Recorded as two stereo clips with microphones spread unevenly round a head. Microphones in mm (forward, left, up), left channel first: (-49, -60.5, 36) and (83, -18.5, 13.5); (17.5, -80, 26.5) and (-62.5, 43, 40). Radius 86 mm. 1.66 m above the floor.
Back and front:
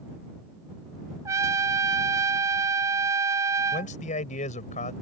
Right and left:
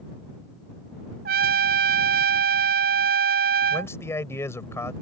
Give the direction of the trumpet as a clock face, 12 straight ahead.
9 o'clock.